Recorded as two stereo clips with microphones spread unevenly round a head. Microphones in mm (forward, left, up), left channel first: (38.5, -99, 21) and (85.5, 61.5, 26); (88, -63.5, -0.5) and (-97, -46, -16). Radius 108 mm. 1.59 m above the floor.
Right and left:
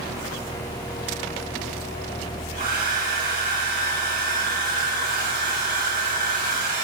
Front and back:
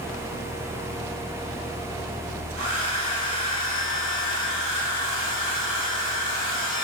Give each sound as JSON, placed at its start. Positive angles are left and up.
{"t": 2.6, "sound": "a hair dryer", "azimuth_deg": 55, "distance_m": 4.0}